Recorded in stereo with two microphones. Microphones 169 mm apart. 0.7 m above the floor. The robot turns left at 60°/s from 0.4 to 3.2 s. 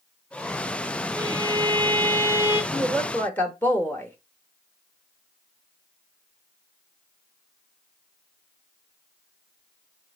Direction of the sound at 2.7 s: Centre (ahead or behind).